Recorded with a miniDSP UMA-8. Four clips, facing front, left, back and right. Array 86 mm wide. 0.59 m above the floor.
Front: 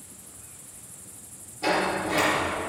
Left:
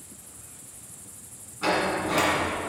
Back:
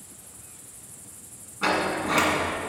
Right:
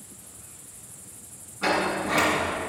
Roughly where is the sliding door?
Behind.